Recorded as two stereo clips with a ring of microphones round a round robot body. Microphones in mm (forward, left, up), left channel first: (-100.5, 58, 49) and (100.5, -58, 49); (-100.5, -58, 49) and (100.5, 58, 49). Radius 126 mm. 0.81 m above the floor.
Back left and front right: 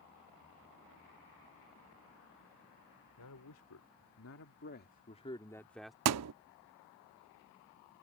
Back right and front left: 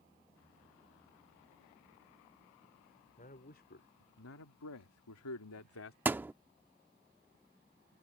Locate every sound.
3.2 s a man speaking: 150° left; by 6.0 s 120° right
6.0 s a thud: 55° right